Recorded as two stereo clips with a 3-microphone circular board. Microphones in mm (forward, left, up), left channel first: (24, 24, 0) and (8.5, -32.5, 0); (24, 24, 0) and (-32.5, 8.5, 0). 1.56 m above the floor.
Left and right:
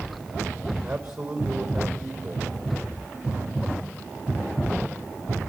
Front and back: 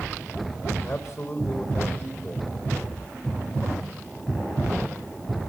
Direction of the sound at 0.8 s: 25° right.